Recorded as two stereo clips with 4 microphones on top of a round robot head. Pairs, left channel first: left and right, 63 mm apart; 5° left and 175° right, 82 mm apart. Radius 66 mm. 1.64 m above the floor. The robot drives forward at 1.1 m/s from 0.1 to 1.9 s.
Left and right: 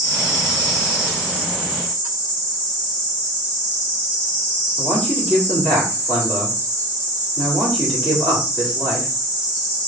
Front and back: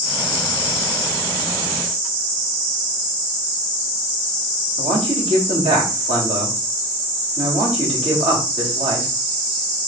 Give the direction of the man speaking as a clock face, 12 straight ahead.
6 o'clock.